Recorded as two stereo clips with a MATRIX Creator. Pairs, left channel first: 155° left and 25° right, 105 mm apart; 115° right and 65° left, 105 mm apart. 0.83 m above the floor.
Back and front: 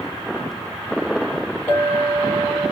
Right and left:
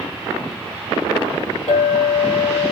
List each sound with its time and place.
1.7 s a clink: 130° right, 1.3 m